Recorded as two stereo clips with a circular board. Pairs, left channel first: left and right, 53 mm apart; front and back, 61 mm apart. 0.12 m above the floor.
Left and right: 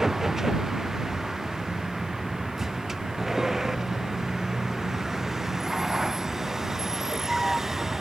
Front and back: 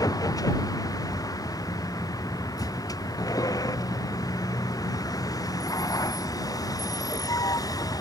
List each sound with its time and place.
0.0 s a vehicle: 5° right